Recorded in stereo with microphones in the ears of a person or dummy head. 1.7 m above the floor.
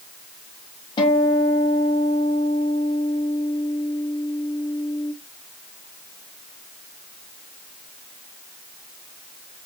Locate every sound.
1.0 s a guitar: 30° left (ahead or behind), 1.0 m